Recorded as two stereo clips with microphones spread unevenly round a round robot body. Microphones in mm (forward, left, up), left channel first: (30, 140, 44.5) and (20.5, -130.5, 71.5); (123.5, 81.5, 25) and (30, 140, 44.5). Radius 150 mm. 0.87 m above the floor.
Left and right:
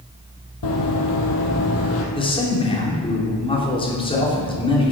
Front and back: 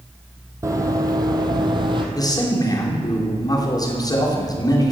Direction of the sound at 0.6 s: 100° left.